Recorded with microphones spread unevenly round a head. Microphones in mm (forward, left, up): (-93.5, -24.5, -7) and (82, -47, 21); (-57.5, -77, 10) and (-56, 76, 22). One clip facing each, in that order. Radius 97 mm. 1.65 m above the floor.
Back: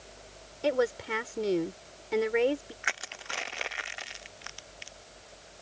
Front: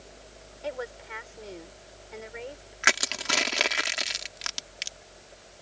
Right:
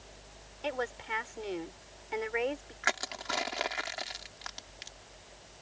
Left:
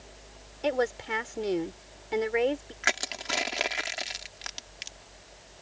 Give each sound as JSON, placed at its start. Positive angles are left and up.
{"t": 0.6, "sound": "a woman speaking", "azimuth_deg": 130}
{"t": 2.8, "sound": "crushing", "azimuth_deg": 15}